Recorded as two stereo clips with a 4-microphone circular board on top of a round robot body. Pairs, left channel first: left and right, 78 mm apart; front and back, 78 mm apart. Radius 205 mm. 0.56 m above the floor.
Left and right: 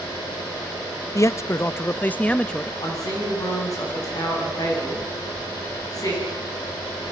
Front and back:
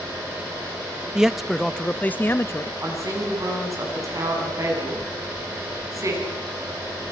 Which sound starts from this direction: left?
A man speaking, at 1.1 s.